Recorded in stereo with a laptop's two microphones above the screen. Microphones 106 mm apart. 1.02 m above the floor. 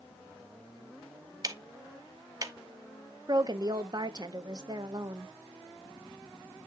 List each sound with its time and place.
1.4 s ticking: 35° right (ahead or behind), 0.9 m
3.3 s a woman speaking: 40° right (ahead or behind), 1.0 m